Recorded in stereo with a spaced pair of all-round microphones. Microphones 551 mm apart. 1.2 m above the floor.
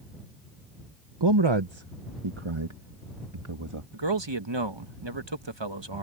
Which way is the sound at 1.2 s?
50° right (ahead or behind).